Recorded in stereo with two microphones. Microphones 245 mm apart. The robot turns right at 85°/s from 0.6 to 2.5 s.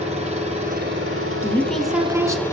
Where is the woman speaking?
10° left (ahead or behind), 1.1 m; by 2.4 s 15° right (ahead or behind), 1.1 m.